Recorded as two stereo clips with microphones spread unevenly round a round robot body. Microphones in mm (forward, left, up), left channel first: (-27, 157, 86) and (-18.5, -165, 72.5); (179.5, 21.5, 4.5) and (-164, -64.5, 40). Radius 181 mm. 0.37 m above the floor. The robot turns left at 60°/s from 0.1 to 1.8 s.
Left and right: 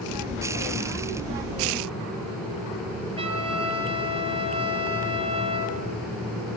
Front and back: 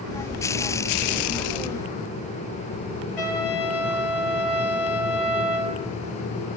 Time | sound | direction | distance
3.2 | a trumpet | 15° right | 4.5 m